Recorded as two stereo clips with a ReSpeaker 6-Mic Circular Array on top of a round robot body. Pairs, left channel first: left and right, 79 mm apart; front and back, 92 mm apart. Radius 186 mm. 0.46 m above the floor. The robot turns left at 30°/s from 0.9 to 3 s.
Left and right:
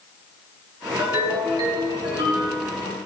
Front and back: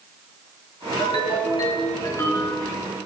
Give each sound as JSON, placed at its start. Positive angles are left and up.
{"t": 1.0, "sound": "a ringtone", "azimuth_deg": -25, "distance_m": 6.0}